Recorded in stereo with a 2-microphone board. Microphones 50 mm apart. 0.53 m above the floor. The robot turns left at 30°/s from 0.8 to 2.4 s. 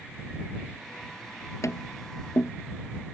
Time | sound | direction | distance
1.6 | tapping | 85° left | ?